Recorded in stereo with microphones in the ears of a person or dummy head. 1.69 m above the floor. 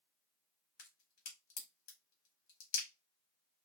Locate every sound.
0.8 s a crack: 45° left (ahead or behind), 1.1 m